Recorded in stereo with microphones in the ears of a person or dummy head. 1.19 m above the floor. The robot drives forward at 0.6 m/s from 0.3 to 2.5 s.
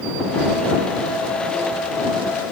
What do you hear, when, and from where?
Only background noise.